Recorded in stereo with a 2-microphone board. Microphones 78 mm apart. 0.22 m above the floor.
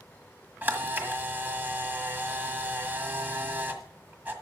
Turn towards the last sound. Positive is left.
turn(degrees=-25)  # may be behind; listen again after turning